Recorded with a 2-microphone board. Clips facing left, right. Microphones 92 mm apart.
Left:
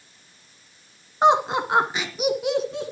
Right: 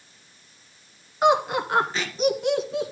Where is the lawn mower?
I don't hear a lawn mower.